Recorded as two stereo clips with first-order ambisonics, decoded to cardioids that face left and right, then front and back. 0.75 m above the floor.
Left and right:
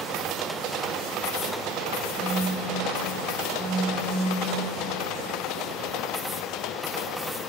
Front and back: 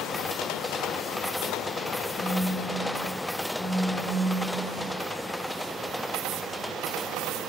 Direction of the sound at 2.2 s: 60° left.